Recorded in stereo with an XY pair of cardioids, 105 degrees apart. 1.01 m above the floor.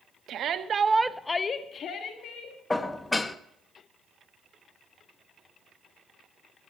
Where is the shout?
70° right, 1.4 m; by 2.6 s 70° left, 2.5 m.